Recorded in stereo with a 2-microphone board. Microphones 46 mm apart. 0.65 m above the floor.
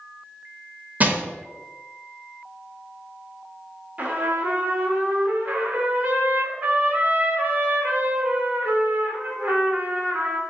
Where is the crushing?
35° right (ahead or behind), 0.7 m.